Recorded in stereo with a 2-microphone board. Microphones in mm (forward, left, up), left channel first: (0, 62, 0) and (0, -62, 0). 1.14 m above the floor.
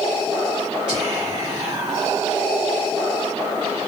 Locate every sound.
0.9 s whispering: 40° right (ahead or behind), 1.2 m